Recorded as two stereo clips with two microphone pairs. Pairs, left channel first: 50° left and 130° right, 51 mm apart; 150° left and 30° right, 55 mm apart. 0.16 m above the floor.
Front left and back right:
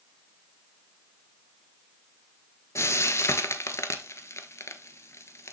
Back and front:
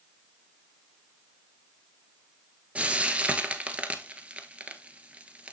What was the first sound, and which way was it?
Frying, 35° left.